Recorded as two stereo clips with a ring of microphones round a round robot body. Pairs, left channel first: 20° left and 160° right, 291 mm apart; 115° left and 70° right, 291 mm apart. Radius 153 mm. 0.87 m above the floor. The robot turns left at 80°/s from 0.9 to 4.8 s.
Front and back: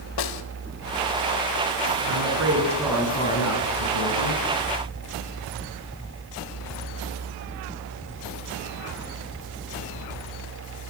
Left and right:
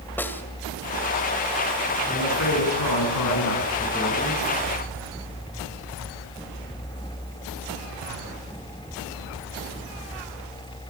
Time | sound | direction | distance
0.2 | a snare drum | 30° left | 2 m
2.1 | a woman speaking | 175° right | 8.5 m